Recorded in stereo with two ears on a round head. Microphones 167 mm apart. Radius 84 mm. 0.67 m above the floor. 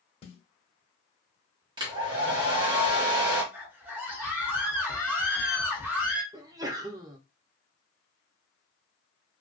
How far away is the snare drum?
About 0.7 m.